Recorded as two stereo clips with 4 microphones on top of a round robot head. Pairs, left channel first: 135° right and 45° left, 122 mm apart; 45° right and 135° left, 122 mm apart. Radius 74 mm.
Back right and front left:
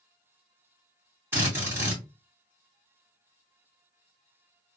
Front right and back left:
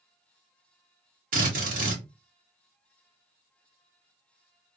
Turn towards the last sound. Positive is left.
turn(degrees=120)